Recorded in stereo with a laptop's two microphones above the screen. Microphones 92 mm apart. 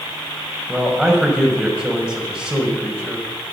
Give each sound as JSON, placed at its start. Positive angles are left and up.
{"t": 0.7, "sound": "a man speaking", "side_deg": -10, "distance_m": 5.0}